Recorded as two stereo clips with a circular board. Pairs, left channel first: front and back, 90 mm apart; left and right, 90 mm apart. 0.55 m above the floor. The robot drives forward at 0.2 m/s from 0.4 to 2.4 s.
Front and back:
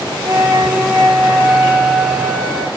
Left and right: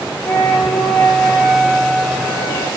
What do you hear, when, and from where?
0.2 s a flute: 140° left, 0.7 m; by 2.7 s 160° left, 0.9 m